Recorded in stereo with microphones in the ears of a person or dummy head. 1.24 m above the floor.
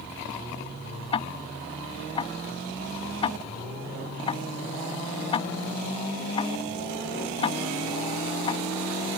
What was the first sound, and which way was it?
Ticking, 25° left (ahead or behind).